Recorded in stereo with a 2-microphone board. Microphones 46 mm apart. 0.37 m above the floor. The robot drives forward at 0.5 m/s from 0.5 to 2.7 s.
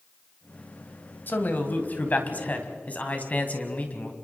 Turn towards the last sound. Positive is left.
turn(degrees=35)  # may be behind; listen again after turning